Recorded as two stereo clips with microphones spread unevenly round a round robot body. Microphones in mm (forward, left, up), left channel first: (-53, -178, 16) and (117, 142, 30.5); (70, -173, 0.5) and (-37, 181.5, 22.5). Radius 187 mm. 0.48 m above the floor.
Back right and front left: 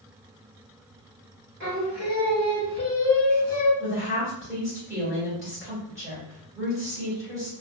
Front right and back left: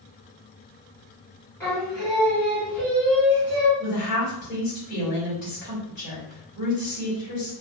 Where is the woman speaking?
30° right, 1.6 m.